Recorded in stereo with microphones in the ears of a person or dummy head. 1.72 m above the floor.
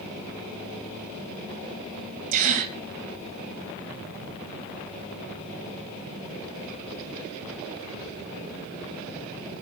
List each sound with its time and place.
2.3 s a gasp: 35° right (ahead or behind), 2 m